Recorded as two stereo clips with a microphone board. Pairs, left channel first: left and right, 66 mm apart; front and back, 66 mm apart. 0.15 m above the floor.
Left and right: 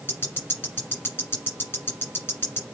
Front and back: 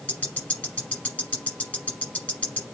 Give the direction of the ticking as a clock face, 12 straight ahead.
10 o'clock.